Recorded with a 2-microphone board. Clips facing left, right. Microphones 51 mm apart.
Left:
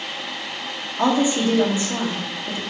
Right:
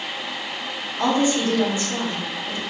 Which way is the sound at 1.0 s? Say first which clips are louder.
Left 1 dB; 25° left (ahead or behind).